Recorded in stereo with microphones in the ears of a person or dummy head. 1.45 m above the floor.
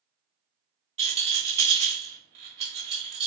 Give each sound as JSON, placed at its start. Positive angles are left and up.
{"t": 1.0, "sound": "a rattle", "side_deg": -30, "distance_m": 1.0}